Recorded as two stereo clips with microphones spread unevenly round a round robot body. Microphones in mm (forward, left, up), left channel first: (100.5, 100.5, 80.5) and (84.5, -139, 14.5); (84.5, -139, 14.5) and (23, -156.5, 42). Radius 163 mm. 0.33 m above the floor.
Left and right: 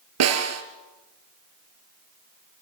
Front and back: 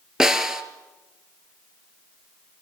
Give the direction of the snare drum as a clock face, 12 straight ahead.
3 o'clock.